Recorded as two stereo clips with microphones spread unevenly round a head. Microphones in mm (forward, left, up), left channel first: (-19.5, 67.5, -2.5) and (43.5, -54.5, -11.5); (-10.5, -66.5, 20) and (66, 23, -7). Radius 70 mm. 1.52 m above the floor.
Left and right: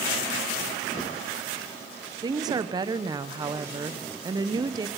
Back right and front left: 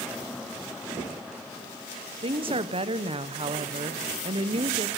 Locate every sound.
2.2 s a woman speaking: straight ahead, 0.7 m